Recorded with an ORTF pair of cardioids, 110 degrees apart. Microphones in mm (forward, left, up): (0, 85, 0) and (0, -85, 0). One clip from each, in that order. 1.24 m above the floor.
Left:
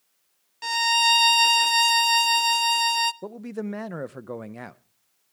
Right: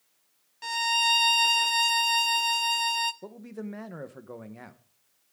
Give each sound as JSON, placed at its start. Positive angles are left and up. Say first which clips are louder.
{"t": 0.6, "sound": "a violin", "louder": "left 4 dB", "azimuth_deg": 25, "distance_m": 0.5}
{"t": 3.2, "sound": "a man speaking", "louder": "left 7 dB", "azimuth_deg": 35, "distance_m": 0.9}